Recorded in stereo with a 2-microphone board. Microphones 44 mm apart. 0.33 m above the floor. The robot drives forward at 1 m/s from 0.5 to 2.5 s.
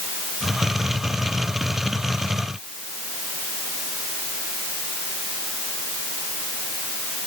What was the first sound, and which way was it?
Only background noise.